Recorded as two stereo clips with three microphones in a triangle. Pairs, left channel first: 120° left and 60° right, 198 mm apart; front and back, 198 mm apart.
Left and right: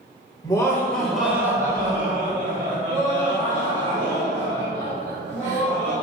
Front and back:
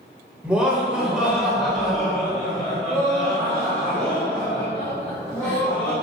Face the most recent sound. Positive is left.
turn(degrees=-85)